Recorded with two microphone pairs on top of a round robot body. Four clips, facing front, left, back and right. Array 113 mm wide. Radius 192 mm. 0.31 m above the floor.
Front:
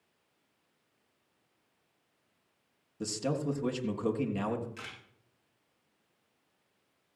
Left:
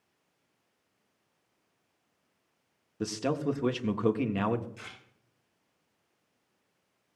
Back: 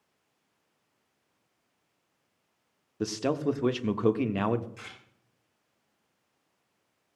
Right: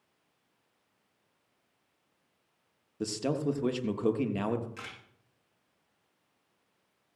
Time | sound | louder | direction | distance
3.0 | a man speaking | left 1 dB, back 5 dB | 175° left | 1.4 m
4.8 | a camera shutter | right 3 dB, front 1 dB | 85° right | 8.5 m